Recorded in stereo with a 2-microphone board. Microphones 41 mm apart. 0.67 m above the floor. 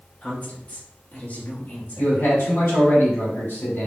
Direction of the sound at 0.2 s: 35° left (ahead or behind).